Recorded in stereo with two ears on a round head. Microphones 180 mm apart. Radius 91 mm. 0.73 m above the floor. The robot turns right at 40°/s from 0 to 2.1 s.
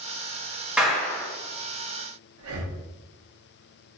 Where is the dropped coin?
No dropped coin in this recording.